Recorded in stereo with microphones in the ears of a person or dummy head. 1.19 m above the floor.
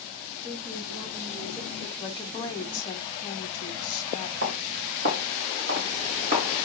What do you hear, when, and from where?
0.4 s a woman speaking: 45° right (ahead or behind), 3 m; by 1.9 s 55° right (ahead or behind), 3.5 m
2.0 s a woman speaking: 15° left (ahead or behind), 1.6 m
4.4 s footsteps: 60° right (ahead or behind), 4.5 m; by 6.7 s 45° right (ahead or behind), 4.5 m